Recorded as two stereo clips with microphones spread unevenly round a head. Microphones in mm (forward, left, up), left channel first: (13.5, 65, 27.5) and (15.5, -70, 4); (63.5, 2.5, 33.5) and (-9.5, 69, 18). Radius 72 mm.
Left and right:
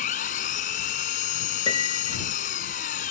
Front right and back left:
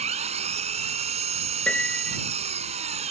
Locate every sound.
0.0 s an engine running: 130° left
1.7 s a piano: 35° left